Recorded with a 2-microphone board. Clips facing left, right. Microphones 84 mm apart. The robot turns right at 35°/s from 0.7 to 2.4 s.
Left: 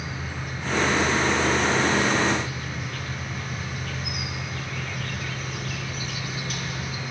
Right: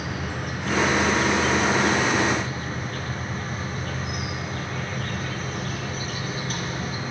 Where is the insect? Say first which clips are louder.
Right 4 dB; 105° right, 4 m; by 7.1 s 45° right, 4 m.